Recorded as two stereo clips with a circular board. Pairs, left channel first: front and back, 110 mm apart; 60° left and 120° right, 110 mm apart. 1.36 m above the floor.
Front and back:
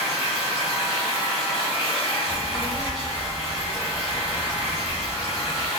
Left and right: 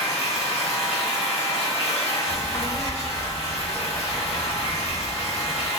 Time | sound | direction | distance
0.0 | running water | 30° left | 2.0 m
2.3 | a child speaking | 35° left | 1.9 m